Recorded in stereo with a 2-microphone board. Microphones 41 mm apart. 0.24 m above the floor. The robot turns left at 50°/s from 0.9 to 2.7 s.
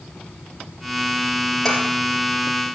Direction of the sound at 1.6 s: 5° left (ahead or behind).